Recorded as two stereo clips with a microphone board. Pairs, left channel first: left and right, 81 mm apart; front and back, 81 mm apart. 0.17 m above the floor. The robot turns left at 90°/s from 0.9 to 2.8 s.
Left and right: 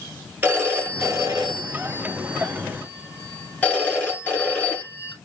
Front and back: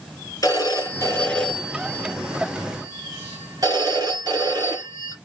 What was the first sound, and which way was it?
A phone ringing, 30° right.